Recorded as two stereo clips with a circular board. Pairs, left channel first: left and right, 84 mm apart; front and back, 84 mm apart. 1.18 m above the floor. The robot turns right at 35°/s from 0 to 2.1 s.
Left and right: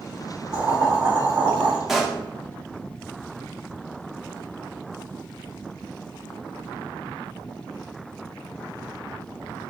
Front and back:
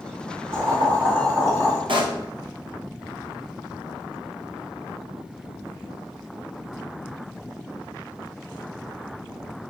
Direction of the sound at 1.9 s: Straight behind.